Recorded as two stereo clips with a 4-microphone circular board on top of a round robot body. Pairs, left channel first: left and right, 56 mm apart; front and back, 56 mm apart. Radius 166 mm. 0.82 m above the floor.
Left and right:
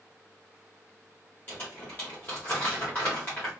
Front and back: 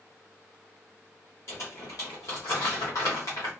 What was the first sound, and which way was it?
Crumpling, 35° left.